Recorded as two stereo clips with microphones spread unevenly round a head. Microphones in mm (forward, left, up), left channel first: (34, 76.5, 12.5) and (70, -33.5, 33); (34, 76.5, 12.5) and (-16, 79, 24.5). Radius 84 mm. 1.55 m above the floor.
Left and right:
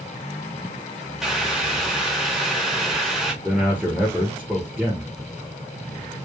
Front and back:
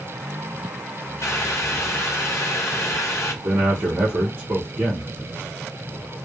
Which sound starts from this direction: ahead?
Boiling, at 1.2 s.